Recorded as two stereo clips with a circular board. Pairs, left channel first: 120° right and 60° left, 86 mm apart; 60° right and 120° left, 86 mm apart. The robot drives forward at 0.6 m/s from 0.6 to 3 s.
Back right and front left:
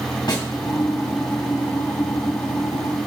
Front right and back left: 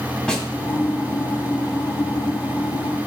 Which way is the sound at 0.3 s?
140° right.